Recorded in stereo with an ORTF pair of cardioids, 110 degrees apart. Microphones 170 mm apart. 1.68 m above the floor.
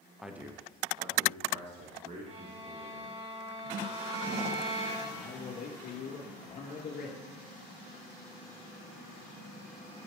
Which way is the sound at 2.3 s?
40° right.